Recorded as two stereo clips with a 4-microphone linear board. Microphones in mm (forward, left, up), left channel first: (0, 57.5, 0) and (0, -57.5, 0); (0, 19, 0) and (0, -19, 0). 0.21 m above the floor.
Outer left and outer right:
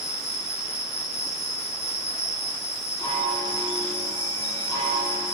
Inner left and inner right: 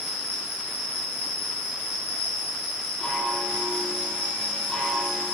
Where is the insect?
65° left (ahead or behind), 5 m.